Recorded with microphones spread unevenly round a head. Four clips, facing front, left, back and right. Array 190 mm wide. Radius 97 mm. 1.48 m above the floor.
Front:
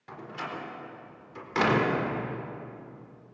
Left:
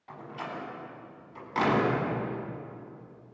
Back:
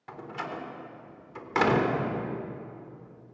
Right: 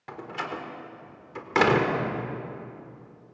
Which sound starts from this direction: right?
A door slam, at 0.1 s.